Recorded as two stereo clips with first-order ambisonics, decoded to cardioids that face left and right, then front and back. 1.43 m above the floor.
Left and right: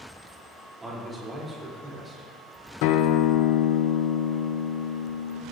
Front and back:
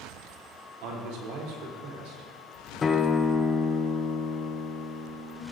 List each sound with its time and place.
0.8 s a man speaking: 170° right, 3.5 m
2.8 s a guitar: 70° left, 0.7 m